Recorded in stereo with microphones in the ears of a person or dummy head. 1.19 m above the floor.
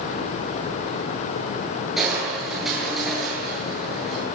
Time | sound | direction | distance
2.0 | crushing | 5° right (ahead or behind) | 9 m